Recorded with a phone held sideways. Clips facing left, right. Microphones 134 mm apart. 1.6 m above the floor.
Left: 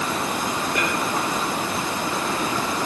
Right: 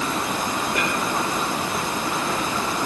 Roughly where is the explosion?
No explosion in this recording.